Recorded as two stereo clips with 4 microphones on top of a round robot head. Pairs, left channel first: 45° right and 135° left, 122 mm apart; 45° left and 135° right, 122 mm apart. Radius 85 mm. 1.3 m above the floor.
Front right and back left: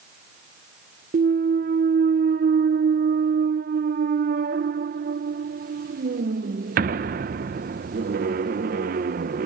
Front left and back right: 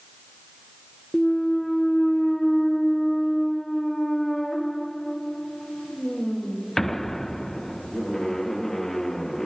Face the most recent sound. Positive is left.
turn(degrees=135)